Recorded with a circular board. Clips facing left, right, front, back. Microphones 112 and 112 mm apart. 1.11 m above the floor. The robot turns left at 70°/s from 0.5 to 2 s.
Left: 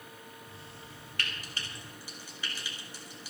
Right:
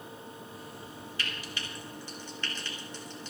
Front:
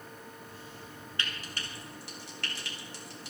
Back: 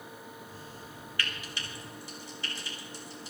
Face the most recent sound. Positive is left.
turn(degrees=10)